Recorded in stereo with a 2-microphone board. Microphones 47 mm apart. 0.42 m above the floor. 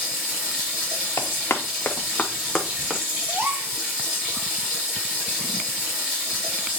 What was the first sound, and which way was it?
Running water, 25° right (ahead or behind).